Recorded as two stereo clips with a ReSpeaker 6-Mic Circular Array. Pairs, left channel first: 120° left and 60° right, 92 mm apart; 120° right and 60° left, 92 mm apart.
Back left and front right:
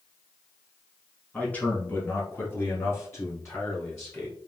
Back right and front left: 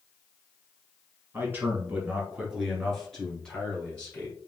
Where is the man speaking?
65° left, 1.1 m; by 4.4 s 170° left, 1.8 m.